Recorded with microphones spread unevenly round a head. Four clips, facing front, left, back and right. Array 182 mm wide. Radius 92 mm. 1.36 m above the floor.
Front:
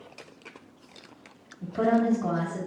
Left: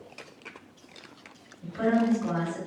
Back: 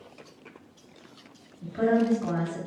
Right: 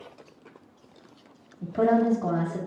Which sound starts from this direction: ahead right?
A woman speaking, at 1.6 s.